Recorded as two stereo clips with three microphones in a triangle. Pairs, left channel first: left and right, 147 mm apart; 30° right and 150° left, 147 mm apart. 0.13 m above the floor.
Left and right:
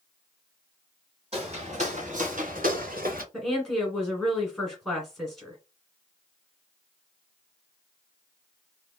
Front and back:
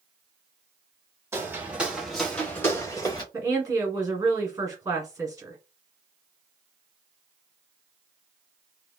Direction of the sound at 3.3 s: Straight behind.